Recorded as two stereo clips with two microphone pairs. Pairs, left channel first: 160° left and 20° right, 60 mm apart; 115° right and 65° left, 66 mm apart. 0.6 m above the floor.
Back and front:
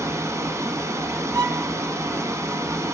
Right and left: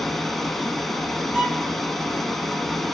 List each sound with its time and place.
0.0 s running water: 25° right, 0.7 m
1.3 s a violin: 10° right, 1.2 m